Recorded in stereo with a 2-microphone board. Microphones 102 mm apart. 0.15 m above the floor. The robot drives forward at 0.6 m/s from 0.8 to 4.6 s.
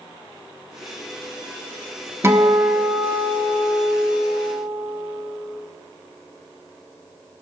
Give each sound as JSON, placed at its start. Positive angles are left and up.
{"t": 2.2, "sound": "a guitar", "side_deg": -25, "distance_m": 0.8}